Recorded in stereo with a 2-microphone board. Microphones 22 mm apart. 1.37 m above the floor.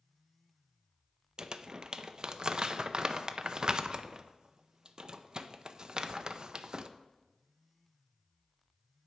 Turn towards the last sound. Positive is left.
turn(degrees=-35)  # may be behind; listen again after turning